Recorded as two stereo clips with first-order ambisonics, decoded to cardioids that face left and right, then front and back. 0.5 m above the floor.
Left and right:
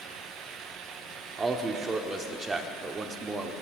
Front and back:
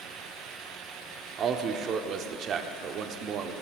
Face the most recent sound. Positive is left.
turn(degrees=-160)